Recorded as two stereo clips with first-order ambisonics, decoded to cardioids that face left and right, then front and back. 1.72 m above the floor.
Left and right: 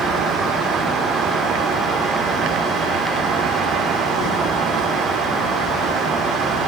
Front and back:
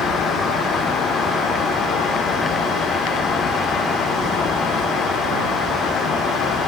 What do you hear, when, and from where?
Only background noise.